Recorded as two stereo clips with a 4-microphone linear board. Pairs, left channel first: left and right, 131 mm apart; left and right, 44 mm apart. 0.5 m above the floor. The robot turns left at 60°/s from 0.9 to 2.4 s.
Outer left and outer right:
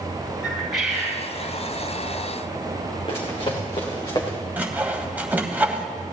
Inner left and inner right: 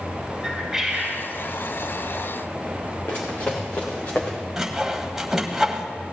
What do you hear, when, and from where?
0.4 s a bird: 5° right (ahead or behind), 5.5 m; by 1.2 s 15° left (ahead or behind), 5.5 m
3.1 s running footsteps: 45° left (ahead or behind), 3 m; by 4.4 s 30° left (ahead or behind), 3.5 m
4.6 s sawing: 10° right (ahead or behind), 1.2 m